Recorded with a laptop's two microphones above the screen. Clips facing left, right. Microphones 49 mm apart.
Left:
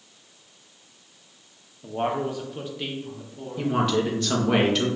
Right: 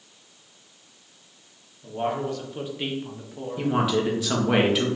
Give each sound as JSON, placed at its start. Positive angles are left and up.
{"t": 1.8, "sound": "a man speaking", "side_deg": 35, "distance_m": 1.1}
{"t": 3.6, "sound": "a man speaking", "side_deg": -10, "distance_m": 1.2}